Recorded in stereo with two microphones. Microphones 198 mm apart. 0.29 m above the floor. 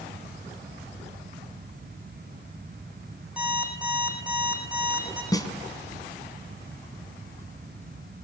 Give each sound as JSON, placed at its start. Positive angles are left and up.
{"t": 3.4, "sound": "an alarm clock", "side_deg": -5, "distance_m": 8.0}
{"t": 5.3, "sound": "a snare drum", "side_deg": 20, "distance_m": 2.5}